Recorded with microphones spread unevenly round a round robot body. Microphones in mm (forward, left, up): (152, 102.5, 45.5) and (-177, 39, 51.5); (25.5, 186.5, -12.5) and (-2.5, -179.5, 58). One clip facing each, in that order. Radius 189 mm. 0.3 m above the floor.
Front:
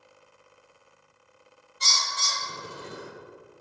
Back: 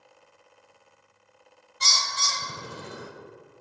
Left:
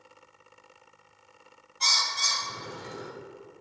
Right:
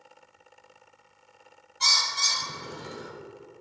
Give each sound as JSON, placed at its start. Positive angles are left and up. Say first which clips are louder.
{"t": 1.8, "sound": "a bird", "louder": "back 1 dB, even", "azimuth_deg": -165, "distance_m": 0.9}